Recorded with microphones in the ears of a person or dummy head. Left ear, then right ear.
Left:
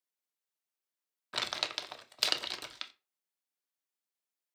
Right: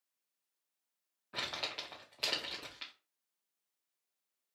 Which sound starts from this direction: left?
Crumpling, at 1.3 s.